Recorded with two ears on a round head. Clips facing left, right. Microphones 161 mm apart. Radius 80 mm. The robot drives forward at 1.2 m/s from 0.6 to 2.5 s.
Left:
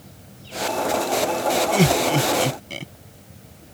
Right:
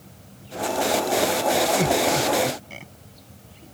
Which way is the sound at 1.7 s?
40° left (ahead or behind).